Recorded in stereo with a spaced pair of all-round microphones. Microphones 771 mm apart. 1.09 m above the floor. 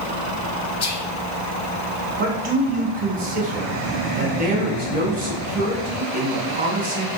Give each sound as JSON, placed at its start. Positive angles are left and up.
{"t": 0.8, "sound": "whispering", "side_deg": 35, "distance_m": 0.6}
{"t": 2.2, "sound": "a man speaking", "side_deg": -40, "distance_m": 1.0}